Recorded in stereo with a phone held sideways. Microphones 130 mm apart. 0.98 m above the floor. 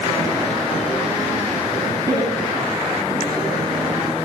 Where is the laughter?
25° right (ahead or behind), 8.5 m; by 4.3 s 30° right (ahead or behind), 7 m.